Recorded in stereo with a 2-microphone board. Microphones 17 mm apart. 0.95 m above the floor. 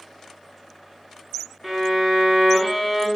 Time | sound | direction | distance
1.6 | a violin | centre (ahead or behind) | 0.5 m